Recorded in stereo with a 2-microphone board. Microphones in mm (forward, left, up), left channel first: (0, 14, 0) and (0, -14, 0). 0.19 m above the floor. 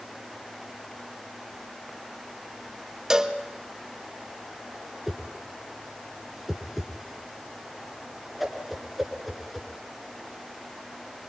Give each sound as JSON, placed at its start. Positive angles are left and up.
{"t": 3.1, "sound": "a cowbell", "side_deg": -15, "distance_m": 1.3}
{"t": 5.1, "sound": "a whoosh", "side_deg": -5, "distance_m": 3.0}